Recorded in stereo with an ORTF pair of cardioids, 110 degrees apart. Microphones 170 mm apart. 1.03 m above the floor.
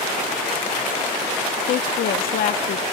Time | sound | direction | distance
1.7 | a woman speaking | 60° left | 1.4 m